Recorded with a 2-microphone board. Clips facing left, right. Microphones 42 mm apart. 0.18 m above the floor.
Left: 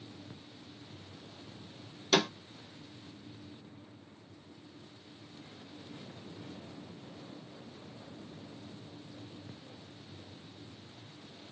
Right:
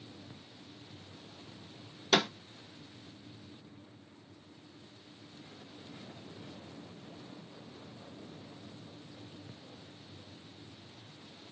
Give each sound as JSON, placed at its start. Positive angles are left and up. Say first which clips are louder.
{"t": 2.1, "sound": "a snare drum", "louder": "even", "side_deg": -10, "distance_m": 1.8}